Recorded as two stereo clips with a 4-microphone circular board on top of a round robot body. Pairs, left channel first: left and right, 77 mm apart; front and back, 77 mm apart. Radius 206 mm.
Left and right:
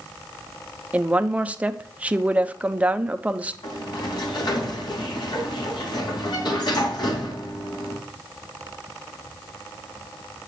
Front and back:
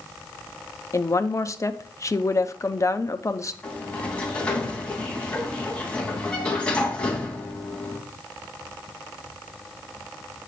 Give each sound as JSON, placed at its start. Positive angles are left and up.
{"t": 0.9, "sound": "a woman speaking", "azimuth_deg": -25, "distance_m": 1.0}
{"t": 3.6, "sound": "a sliding door", "azimuth_deg": 75, "distance_m": 3.0}